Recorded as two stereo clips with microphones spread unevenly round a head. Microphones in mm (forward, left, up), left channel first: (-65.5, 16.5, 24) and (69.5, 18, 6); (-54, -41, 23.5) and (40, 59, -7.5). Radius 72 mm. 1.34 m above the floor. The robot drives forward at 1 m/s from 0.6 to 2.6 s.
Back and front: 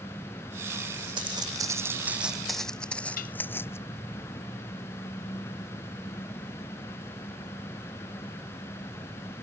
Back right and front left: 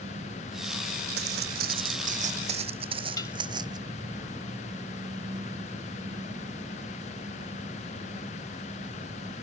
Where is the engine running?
105° left; by 9.4 s 110° left.